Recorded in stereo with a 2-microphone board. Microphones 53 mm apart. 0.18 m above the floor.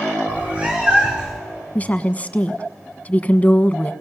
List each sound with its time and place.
0.3 s a cat meowing: 20° right (ahead or behind), 5.5 m; by 1.4 s 10° right (ahead or behind), 5 m
1.8 s a woman speaking: 30° left (ahead or behind), 1.2 m